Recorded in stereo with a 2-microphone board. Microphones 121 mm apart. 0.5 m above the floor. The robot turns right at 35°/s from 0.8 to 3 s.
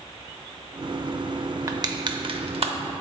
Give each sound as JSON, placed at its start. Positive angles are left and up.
{"t": 1.7, "sound": "crushing", "side_deg": -30, "distance_m": 0.6}